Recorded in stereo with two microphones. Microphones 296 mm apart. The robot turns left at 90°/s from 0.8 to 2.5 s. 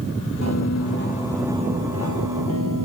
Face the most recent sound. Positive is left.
turn(degrees=-100)